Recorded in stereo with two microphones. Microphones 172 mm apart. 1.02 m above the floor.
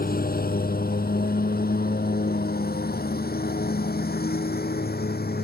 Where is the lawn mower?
60° left (ahead or behind); by 5.5 s 65° left (ahead or behind).